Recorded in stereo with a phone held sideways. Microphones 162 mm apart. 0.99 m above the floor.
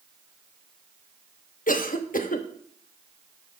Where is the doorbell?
No doorbell in this recording.